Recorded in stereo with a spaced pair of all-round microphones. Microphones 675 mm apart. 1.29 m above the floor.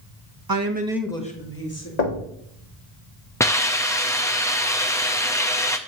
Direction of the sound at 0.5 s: 35° right (ahead or behind).